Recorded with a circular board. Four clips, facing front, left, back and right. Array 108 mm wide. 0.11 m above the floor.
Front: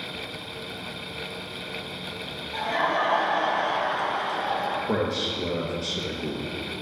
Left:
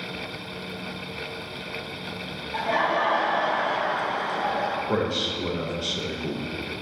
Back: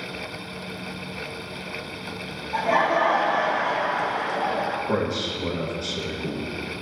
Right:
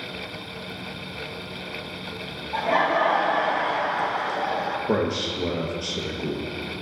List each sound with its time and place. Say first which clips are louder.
2.5 s laughter: right 2 dB, back 4 dB; 130° right, 2.5 m; by 4.8 s 165° right, 2.5 m
4.9 s a man speaking: right 2 dB, back 1 dB; 80° right, 2.5 m